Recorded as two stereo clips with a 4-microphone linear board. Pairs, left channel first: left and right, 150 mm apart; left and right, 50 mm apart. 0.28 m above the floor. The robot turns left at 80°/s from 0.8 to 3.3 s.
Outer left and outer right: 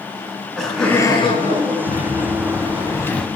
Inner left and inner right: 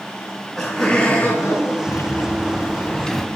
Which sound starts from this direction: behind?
Laughter, at 0.2 s.